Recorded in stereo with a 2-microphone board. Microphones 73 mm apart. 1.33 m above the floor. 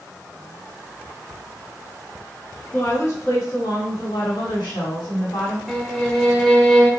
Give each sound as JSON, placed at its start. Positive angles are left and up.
{"t": 2.7, "sound": "a woman speaking", "side_deg": 30, "distance_m": 1.0}
{"t": 5.7, "sound": "a violin", "side_deg": 5, "distance_m": 0.6}